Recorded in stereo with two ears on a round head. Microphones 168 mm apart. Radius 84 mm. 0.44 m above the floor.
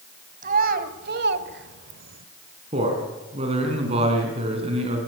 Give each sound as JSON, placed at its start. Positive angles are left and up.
{"t": 0.4, "sound": "a child speaking", "side_deg": -50, "distance_m": 2.0}
{"t": 2.7, "sound": "a man speaking", "side_deg": -30, "distance_m": 4.5}